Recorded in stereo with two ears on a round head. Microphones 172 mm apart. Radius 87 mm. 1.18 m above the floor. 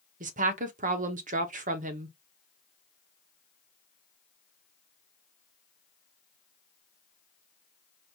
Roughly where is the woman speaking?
Right.